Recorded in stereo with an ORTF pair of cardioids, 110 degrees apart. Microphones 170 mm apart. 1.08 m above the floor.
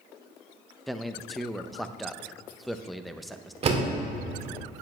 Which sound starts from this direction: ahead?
A man speaking, at 0.9 s.